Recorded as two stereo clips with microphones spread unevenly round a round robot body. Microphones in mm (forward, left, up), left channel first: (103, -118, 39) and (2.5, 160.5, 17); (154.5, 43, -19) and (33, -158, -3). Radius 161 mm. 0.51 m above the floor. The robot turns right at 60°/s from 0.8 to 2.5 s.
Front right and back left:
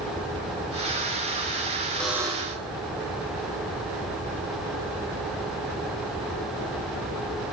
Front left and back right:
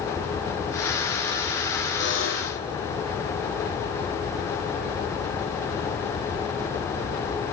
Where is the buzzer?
15° left, 5.5 m; by 2.6 s 45° left, 5.5 m.